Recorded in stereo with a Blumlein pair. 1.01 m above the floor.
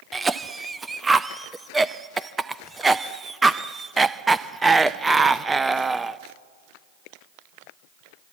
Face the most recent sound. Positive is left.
turn(degrees=-10)